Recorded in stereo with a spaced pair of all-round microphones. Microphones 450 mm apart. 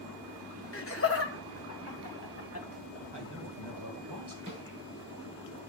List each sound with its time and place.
0.7 s laughter: 30° left (ahead or behind), 0.8 m
3.1 s a man speaking: 60° right (ahead or behind), 2.5 m
4.5 s a snare drum: 45° right (ahead or behind), 6.5 m